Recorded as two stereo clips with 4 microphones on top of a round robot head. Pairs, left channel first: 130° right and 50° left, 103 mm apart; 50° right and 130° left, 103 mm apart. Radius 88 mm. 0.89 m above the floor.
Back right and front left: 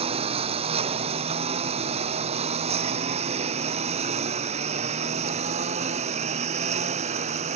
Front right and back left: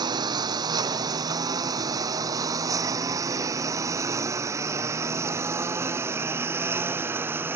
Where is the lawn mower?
80° left; by 7.6 s 60° left.